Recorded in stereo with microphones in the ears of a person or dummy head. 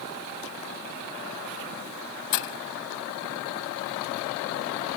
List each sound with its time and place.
2.3 s breaking glass: 60° left (ahead or behind)